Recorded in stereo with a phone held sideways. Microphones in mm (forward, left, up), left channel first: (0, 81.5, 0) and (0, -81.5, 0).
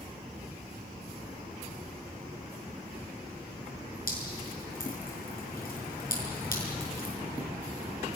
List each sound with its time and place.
4.1 s dripping: 60° left (ahead or behind), 6 m